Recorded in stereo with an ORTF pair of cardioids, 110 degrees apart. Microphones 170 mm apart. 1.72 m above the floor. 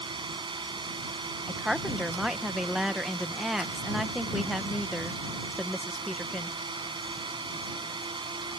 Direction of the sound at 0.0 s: 25° right.